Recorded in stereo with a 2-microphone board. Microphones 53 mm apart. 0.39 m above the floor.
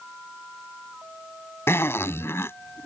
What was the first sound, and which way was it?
A zipper, 50° left (ahead or behind).